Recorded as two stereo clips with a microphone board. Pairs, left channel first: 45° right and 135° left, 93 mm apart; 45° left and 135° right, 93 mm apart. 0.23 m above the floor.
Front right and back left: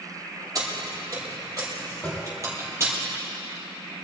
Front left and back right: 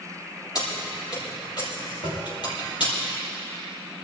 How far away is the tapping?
About 6 m.